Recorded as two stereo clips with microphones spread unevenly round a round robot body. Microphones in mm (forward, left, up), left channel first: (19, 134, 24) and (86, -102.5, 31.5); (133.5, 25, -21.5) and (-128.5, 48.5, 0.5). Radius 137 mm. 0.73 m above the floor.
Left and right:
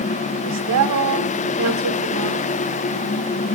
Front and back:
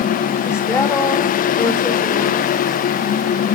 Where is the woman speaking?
85° right, 2.5 m.